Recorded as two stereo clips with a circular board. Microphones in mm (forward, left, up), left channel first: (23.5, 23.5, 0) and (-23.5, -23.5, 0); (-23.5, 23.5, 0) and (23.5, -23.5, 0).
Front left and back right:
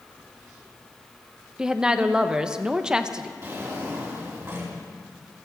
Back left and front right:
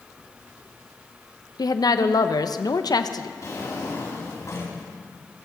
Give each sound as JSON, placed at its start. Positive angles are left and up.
{"t": 1.6, "sound": "a woman speaking", "azimuth_deg": 145, "distance_m": 0.8}
{"t": 3.4, "sound": "a drawer", "azimuth_deg": 175, "distance_m": 4.5}